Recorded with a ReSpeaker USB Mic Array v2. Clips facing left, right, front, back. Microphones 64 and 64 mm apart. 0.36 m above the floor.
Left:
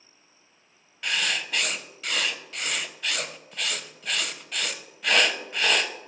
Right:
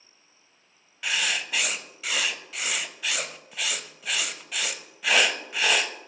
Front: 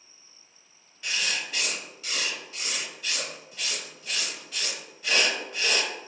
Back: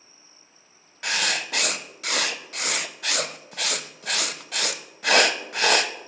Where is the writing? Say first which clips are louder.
Even, back 5 dB; 175° right, 0.5 m.